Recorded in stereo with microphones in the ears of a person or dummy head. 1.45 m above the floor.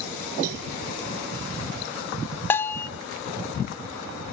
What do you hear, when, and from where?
0.4 s a cowbell: 70° right (ahead or behind), 2 m
2.5 s a bell: 15° left (ahead or behind), 0.6 m